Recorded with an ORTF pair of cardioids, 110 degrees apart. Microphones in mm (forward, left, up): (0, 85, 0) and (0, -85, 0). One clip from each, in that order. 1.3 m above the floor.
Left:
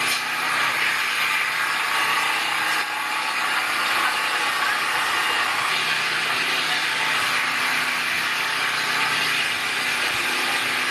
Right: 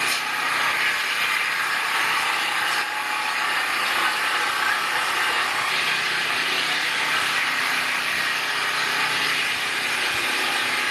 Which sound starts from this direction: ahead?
An engine running, at 0.0 s.